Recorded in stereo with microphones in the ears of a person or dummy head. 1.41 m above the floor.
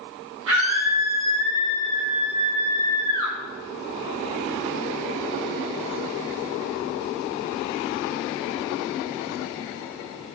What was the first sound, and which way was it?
A scream, 80° right.